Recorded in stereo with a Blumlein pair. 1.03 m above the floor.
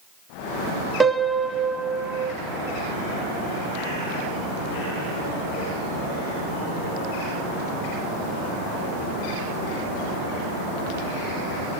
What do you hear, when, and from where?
1.0 s a piano: 10° right, 1.2 m